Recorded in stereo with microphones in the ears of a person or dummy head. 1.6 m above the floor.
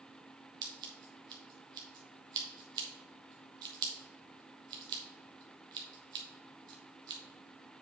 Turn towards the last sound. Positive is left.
turn(degrees=-30)  # may be behind; listen again after turning